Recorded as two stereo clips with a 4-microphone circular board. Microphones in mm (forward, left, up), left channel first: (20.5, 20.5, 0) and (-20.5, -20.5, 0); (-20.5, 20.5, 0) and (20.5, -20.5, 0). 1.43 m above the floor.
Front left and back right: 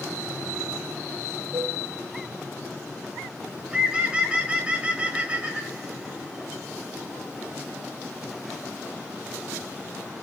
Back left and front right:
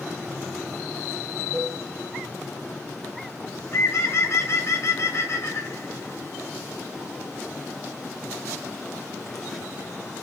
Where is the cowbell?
130° right, 1.5 m.